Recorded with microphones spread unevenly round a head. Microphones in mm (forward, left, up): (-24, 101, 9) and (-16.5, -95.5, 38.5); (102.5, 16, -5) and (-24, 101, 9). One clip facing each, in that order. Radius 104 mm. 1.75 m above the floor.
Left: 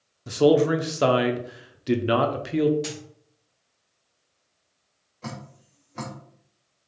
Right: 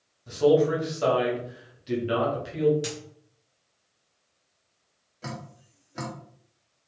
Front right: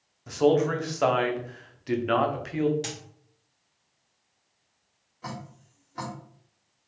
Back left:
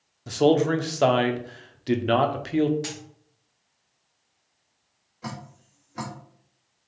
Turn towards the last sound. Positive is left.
turn(degrees=-150)